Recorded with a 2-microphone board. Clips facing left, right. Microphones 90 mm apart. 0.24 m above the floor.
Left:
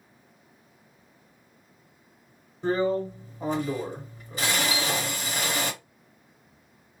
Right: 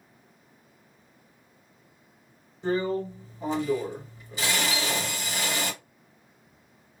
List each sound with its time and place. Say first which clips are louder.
2.6 s a drill: left 2 dB; 50° left (ahead or behind), 1.8 m
4.7 s a piano: left 1 dB; 10° left (ahead or behind), 1.1 m